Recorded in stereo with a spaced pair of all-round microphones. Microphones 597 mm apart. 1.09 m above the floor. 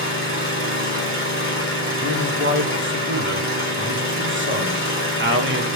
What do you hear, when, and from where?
0.0 s an engine running: 20° right (ahead or behind), 3.5 m
2.0 s a man speaking: 20° right (ahead or behind), 1.5 m